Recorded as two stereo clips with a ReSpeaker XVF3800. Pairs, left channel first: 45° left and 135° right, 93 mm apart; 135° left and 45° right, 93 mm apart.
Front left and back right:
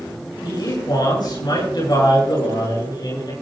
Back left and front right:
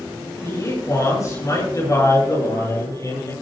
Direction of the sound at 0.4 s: 80° left.